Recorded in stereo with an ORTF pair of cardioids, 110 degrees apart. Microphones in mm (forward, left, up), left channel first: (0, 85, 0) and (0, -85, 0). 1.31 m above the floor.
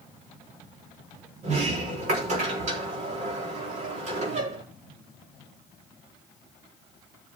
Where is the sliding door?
50° right, 4 m.